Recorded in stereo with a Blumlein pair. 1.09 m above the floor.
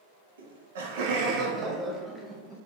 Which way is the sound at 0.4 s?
65° right.